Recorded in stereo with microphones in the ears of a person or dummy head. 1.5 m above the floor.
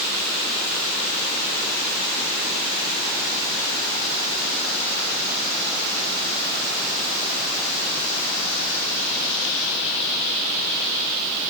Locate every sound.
Only background noise.